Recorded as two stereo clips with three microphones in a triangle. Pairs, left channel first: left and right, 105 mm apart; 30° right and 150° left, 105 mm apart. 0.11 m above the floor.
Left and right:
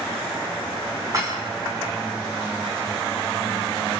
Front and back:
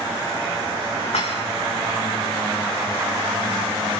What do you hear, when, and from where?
1.1 s dishes clattering: 35° right, 6 m